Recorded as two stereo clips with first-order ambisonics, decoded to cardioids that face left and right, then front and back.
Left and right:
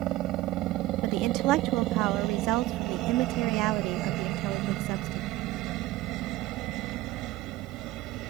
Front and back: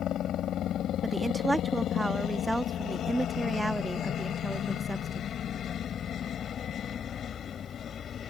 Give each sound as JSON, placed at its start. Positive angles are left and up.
{"t": 0.0, "sound": "a helicopter", "azimuth_deg": -50}
{"t": 1.0, "sound": "a woman speaking", "azimuth_deg": -95}